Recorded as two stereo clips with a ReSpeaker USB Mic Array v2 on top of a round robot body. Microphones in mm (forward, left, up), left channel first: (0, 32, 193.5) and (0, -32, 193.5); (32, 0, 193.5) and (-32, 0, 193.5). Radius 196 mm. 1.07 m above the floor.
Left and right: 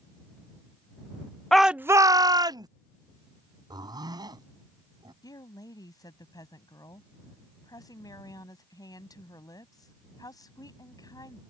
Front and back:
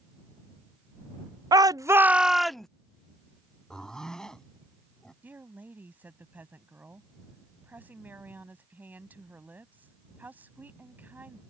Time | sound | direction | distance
1.5 | a shout | 175° left | ?
3.7 | a zipper | 80° right | ?
5.2 | a woman speaking | 120° left | ?